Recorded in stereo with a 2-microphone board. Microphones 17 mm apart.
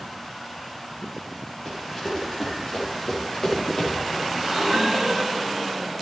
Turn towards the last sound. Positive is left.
turn(degrees=-45)  # may be behind; listen again after turning